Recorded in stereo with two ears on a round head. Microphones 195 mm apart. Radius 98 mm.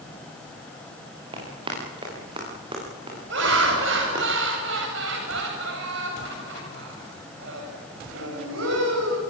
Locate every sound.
1.3 s running footsteps: 25° right (ahead or behind), 8.5 m
3.3 s laughter: 60° right (ahead or behind), 8 m